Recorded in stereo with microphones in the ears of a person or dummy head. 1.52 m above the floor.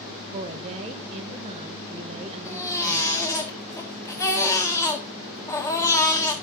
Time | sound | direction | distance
0.3 | a woman speaking | 35° right (ahead or behind) | 1.0 m
2.5 | a baby crying | 15° left (ahead or behind) | 1.9 m